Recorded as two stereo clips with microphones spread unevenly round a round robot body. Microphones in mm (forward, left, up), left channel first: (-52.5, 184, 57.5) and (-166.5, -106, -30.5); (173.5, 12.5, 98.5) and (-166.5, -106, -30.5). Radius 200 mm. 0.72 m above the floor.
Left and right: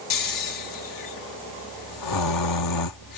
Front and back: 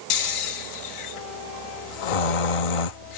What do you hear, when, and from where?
0.1 s snoring: 25° left